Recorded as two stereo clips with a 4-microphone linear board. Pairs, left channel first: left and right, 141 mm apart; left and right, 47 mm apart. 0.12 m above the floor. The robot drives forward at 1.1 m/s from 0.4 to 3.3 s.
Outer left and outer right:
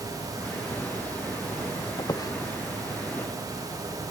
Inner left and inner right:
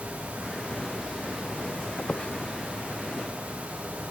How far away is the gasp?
No gasp in this recording.